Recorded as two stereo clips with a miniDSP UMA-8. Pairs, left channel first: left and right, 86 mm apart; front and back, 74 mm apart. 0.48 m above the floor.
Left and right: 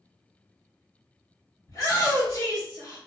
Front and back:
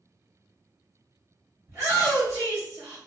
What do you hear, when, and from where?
1.7 s a shout: 135° left, 1.6 m